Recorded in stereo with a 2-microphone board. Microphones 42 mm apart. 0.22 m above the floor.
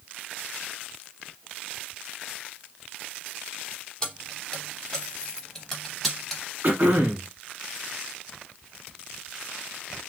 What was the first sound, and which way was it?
Keys jangling, 20° left (ahead or behind).